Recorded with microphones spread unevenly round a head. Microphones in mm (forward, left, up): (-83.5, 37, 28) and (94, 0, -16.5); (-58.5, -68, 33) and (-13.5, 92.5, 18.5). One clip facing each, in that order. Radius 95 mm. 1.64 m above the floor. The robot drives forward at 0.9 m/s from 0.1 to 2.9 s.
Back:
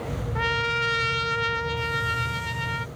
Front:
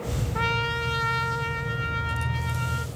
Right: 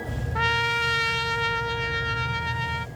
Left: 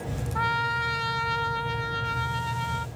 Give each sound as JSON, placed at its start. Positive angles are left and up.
{"t": 0.3, "sound": "a trumpet", "azimuth_deg": -130}